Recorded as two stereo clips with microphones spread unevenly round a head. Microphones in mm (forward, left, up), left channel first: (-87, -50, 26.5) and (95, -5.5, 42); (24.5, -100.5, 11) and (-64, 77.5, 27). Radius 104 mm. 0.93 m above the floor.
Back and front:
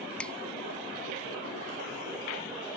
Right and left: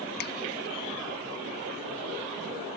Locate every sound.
0.2 s a finger snap: 85° right